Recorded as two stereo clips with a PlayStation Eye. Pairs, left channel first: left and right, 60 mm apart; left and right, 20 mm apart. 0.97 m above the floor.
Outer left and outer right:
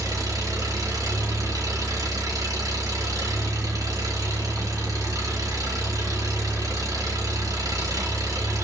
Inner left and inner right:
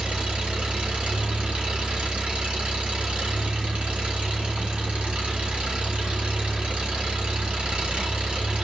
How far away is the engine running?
About 3 m.